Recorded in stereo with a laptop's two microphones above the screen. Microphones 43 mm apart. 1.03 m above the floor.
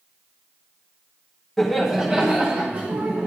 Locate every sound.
1.6 s laughter: 5° left (ahead or behind), 1.2 m; by 3.3 s 55° right (ahead or behind), 1.6 m